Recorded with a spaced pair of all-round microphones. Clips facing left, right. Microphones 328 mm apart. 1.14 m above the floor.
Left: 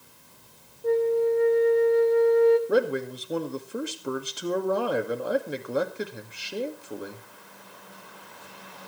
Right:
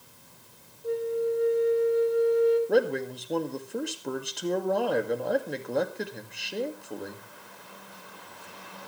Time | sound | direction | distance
0.8 | a flute | 75° left (ahead or behind) | 1.1 m
2.7 | a man speaking | 5° left (ahead or behind) | 2.0 m